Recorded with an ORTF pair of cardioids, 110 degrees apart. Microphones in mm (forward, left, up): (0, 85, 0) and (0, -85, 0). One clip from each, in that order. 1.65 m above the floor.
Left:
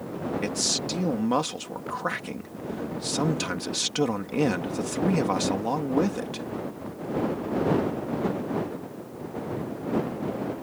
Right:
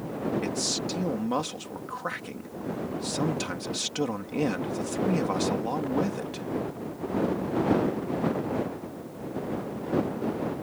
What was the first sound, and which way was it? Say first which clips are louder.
A man speaking: left 2 dB; 25° left.